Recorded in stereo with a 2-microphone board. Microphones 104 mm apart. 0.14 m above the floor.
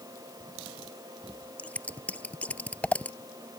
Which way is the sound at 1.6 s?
15° left (ahead or behind).